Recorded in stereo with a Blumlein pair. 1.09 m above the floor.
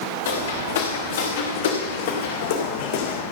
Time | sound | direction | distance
0.2 | footsteps | 65° left | 5.5 m